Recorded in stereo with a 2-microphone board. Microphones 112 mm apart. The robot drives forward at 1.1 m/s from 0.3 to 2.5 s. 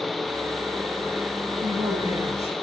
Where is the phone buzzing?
No phone buzzing in this recording.